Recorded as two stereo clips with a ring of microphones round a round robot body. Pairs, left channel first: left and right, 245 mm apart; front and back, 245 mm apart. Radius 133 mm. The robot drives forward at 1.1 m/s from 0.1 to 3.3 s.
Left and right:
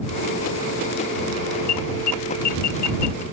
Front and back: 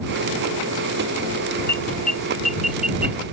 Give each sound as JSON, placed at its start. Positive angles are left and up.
{"t": 1.7, "sound": "an alarm", "azimuth_deg": 80}